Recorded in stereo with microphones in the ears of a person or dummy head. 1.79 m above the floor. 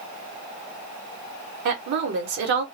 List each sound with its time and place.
1.6 s a woman speaking: 60° right (ahead or behind), 0.9 m